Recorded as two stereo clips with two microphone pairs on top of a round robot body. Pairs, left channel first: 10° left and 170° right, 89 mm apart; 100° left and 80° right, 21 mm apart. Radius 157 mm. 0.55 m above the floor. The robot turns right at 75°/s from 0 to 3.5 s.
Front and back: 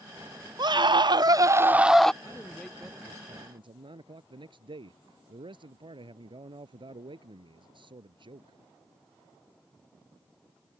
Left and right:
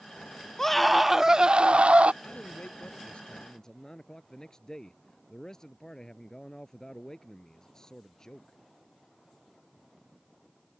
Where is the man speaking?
65° left; by 8.6 s 160° left.